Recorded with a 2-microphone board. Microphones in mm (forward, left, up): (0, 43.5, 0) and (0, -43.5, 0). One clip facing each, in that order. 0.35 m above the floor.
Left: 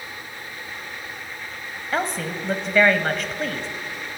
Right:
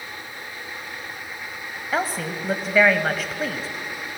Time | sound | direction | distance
1.9 | a woman speaking | 5° right (ahead or behind) | 1.5 m